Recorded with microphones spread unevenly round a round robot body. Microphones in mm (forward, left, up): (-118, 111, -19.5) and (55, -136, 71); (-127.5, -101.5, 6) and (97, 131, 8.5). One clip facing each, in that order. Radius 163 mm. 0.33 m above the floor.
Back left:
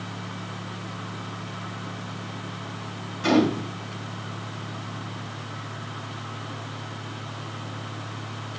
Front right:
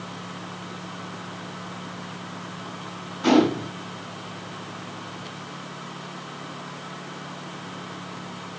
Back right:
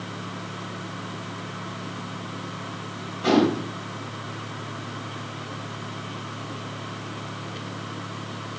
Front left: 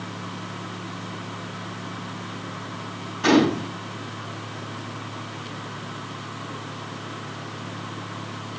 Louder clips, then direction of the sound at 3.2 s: Front right 2 dB, front left 2 dB; 50° left.